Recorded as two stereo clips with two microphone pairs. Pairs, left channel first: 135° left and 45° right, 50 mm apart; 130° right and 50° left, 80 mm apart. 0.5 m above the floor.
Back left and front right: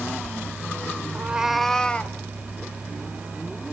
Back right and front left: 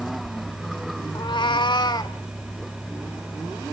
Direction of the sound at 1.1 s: 95° right.